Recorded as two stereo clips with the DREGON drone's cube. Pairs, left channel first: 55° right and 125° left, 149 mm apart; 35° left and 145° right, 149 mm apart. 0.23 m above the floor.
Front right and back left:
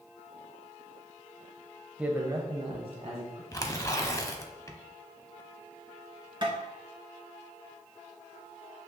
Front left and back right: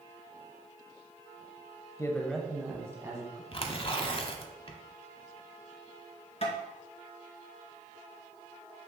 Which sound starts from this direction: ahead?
Tearing paper, at 3.5 s.